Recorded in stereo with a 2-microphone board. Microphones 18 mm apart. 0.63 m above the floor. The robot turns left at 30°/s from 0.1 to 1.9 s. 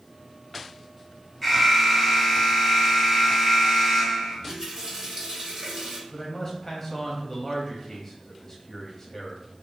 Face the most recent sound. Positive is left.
turn(degrees=20)  # may be behind; listen again after turning